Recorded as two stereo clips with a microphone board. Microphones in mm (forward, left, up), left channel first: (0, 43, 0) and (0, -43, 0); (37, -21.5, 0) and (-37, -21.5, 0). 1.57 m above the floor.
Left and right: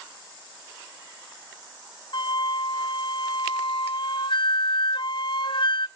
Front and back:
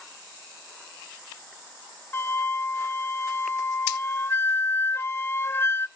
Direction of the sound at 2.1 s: 60° left.